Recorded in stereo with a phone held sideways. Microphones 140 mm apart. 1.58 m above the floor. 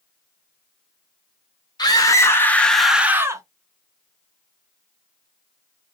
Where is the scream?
30° left (ahead or behind), 1.0 m; by 3.4 s 25° right (ahead or behind), 0.7 m.